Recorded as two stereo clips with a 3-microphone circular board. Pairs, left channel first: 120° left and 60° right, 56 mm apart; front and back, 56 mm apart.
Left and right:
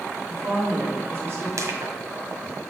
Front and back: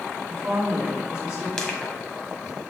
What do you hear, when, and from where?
0.3 s a woman speaking: 105° right, 4 m
1.6 s crushing: 75° right, 1.5 m